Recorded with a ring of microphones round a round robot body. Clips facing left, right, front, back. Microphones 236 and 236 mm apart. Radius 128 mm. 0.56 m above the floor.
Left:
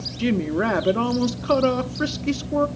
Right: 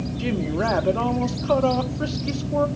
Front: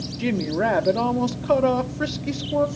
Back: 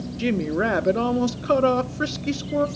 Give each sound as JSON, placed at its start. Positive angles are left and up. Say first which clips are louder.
{"t": 0.2, "sound": "a woman speaking", "louder": "left 4 dB, even", "azimuth_deg": 120, "distance_m": 0.7}